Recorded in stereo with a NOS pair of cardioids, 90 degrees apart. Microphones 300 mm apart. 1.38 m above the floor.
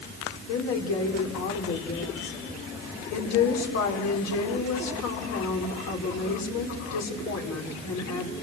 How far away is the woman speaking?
About 4.5 m.